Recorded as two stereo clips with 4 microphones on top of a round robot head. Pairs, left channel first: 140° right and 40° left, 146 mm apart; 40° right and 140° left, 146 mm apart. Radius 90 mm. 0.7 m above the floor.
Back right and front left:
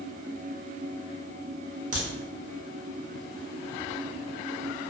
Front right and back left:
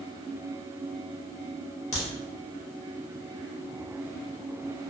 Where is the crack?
5° left, 0.8 m.